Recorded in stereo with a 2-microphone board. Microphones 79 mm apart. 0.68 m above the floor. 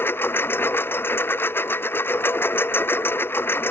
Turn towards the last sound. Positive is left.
turn(degrees=30)  # may be behind; listen again after turning